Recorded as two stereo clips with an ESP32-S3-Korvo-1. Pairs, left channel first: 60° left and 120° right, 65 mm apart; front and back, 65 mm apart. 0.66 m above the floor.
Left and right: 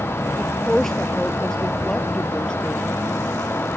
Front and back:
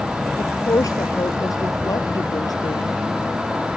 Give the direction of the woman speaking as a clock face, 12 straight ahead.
1 o'clock.